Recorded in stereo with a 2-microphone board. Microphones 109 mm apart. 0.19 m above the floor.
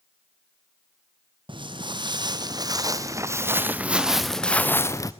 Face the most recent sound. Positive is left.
turn(degrees=30)  # may be behind; listen again after turning